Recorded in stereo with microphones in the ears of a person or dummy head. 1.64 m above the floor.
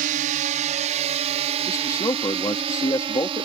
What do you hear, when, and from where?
0.0 s a drone: 45° right (ahead or behind); by 3.5 s 30° right (ahead or behind)
1.7 s a man speaking: 15° left (ahead or behind)